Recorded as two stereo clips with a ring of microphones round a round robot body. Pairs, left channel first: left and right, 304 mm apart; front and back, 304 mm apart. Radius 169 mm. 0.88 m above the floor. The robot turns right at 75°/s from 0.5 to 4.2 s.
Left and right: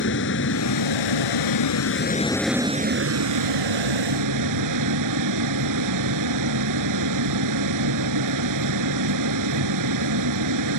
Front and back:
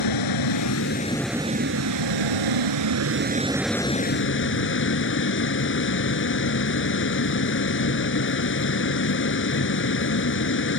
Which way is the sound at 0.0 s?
30° left.